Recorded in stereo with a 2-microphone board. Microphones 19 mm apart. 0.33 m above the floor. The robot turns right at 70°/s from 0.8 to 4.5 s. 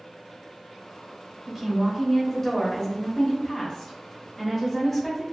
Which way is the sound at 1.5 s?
20° right (ahead or behind).